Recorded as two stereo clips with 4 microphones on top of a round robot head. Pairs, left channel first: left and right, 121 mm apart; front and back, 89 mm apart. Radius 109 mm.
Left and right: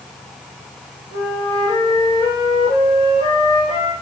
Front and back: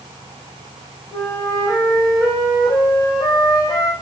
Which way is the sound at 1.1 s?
45° left.